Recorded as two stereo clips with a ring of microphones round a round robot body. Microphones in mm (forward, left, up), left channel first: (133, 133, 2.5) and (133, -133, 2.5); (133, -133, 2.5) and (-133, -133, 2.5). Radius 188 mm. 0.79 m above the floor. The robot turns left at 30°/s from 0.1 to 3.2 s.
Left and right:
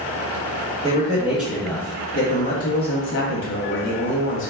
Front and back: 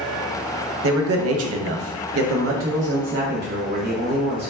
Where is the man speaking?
160° right, 0.6 m; by 4.5 s 130° left, 0.6 m.